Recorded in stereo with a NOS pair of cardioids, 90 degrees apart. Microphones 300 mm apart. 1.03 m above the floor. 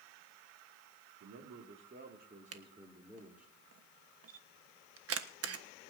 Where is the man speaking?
60° right, 2.5 m; by 3.5 s 5° right, 3.5 m.